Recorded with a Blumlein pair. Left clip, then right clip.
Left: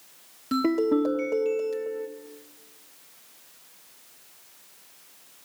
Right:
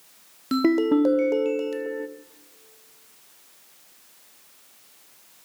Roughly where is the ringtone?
Ahead.